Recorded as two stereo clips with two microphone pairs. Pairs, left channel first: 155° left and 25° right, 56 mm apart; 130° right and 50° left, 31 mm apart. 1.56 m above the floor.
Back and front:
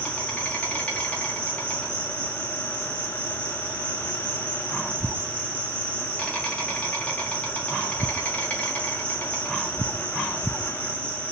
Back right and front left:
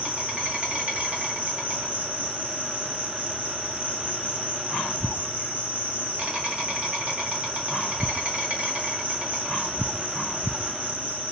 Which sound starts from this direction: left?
An insect, at 0.0 s.